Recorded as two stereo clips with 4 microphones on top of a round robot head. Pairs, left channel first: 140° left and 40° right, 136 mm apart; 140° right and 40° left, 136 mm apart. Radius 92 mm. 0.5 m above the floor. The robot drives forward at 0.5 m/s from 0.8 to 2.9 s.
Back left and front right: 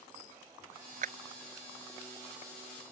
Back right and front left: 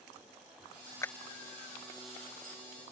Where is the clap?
70° right.